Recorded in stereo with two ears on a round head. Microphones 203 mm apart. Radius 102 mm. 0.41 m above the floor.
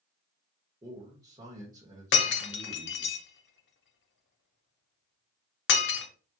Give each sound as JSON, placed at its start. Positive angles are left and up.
{"t": 0.8, "sound": "a man speaking", "side_deg": -15, "distance_m": 1.0}
{"t": 2.1, "sound": "breaking glass", "side_deg": 50, "distance_m": 0.7}